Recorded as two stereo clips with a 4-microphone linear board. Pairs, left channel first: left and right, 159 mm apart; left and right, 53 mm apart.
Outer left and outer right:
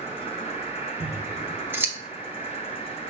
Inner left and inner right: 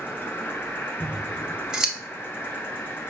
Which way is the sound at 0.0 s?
35° left (ahead or behind).